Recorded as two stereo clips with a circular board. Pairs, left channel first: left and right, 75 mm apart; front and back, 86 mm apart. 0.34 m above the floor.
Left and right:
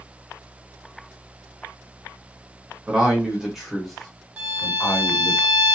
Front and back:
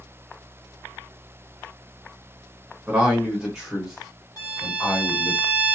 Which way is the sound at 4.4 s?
20° right.